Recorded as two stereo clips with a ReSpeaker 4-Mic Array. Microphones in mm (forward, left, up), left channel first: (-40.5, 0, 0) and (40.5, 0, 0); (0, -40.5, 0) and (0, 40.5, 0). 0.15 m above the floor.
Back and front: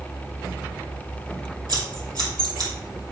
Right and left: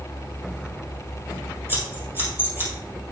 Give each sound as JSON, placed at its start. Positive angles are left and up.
{"t": 1.7, "sound": "scissors", "azimuth_deg": 30, "distance_m": 3.0}